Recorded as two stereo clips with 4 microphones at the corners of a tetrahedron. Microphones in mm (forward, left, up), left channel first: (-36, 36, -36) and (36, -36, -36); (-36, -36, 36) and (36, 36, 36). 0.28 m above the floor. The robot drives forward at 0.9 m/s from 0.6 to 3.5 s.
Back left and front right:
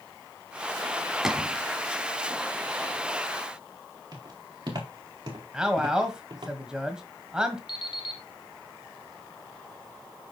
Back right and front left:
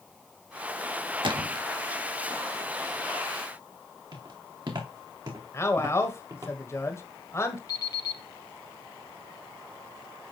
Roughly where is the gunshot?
Ahead left.